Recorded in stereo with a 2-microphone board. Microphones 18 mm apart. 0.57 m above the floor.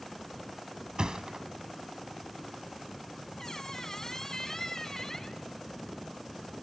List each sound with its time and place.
1.0 s a thud: 55° right (ahead or behind), 1.4 m
3.4 s a squeak: 25° left (ahead or behind), 1.3 m